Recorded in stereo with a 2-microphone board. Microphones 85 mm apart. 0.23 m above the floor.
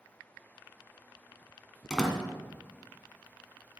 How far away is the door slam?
About 1.5 m.